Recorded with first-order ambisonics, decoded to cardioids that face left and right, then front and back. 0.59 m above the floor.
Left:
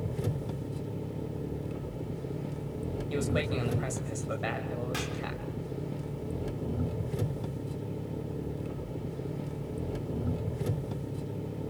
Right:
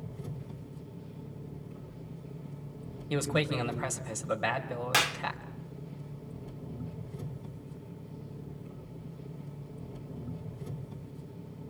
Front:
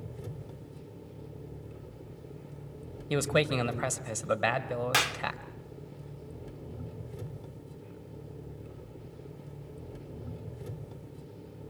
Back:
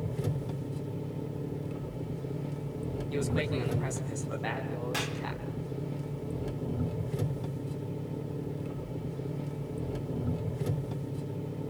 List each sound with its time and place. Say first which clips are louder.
0.0 s an engine running: left 10 dB, back 9 dB; 125° left, 1.0 m
3.1 s a man speaking: right 2 dB, front 6 dB; 15° right, 3.5 m
4.9 s a clap: right 9 dB, front 9 dB; 45° right, 1.0 m